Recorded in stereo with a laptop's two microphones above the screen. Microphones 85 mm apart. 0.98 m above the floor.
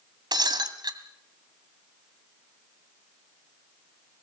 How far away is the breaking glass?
About 1.8 m.